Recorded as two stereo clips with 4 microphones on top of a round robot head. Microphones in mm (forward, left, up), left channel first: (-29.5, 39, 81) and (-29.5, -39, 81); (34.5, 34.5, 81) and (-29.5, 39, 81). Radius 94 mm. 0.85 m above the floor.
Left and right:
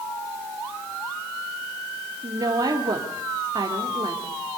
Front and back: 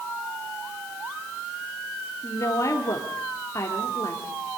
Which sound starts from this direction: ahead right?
A woman speaking, at 2.2 s.